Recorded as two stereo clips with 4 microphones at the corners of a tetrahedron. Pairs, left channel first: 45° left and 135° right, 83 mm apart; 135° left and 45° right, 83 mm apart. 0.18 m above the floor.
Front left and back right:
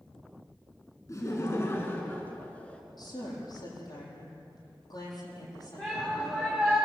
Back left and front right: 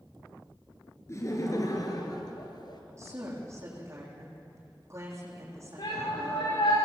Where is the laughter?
90° left, 3 m; by 2.8 s 120° left, 3 m.